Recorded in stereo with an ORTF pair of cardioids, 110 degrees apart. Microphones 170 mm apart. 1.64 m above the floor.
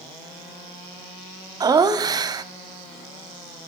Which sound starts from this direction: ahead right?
Laughter, at 1.6 s.